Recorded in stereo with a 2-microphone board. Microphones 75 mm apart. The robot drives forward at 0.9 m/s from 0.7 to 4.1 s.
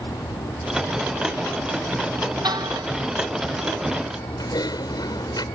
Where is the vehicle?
80° left; by 5.5 s 90° left.